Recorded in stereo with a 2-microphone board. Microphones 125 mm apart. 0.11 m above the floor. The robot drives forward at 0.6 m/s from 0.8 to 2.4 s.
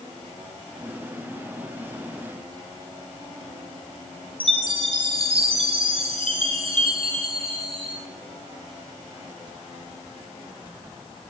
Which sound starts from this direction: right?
A chime, at 4.4 s.